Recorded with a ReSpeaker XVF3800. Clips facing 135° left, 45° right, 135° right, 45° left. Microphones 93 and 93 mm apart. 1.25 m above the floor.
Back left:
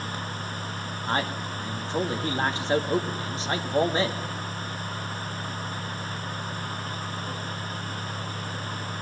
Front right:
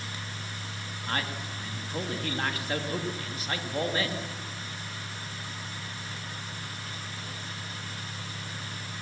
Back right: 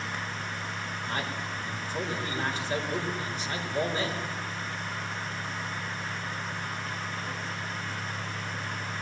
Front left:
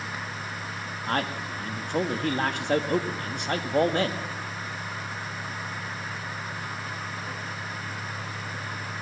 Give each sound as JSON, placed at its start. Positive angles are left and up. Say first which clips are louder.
{"t": 1.1, "sound": "a man speaking", "louder": "back left 5 dB, front left 7 dB", "azimuth_deg": 70, "distance_m": 2.0}